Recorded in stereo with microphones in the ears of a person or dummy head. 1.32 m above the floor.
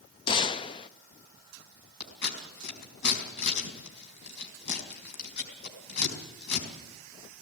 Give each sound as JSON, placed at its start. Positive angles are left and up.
{"t": 0.3, "sound": "a gunshot", "side_deg": 20, "distance_m": 0.6}
{"t": 2.0, "sound": "scissors", "side_deg": 60, "distance_m": 4.5}